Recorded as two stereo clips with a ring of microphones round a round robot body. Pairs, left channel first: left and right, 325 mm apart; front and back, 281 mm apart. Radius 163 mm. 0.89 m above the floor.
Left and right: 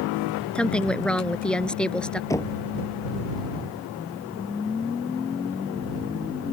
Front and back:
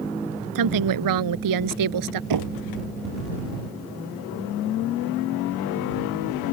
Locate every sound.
0.6 s a woman speaking: 175° left
2.3 s knocking: 170° left